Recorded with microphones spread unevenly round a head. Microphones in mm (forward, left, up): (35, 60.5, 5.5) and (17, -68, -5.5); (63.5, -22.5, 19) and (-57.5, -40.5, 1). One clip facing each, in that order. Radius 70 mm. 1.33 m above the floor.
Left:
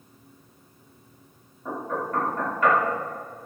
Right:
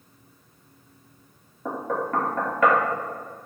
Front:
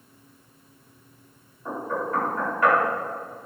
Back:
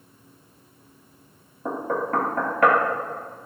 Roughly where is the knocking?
Behind right.